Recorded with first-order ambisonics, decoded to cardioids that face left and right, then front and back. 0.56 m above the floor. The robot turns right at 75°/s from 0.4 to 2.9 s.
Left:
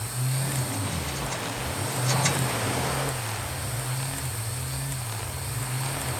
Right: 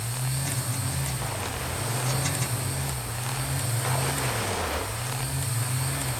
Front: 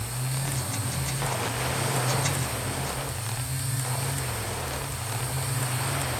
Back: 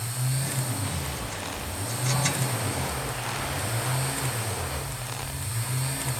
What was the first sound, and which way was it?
Only background noise.